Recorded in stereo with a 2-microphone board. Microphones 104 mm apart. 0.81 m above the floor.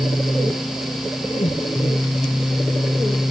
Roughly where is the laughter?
Left.